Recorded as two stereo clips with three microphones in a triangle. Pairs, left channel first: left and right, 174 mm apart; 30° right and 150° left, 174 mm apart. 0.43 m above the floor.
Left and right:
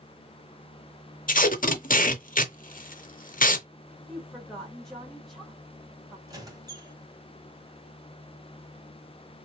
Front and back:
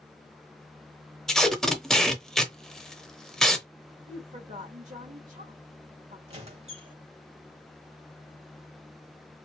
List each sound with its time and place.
1.3 s tape being pulled: 55° left, 0.7 m
4.1 s a woman speaking: 175° left, 1.3 m
6.3 s a squeak: 155° right, 1.1 m